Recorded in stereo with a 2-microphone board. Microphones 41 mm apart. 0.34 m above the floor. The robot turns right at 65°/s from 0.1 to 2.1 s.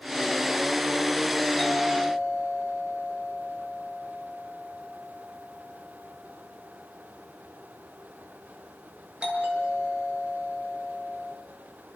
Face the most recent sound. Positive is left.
turn(degrees=-30)  # may be behind; listen again after turning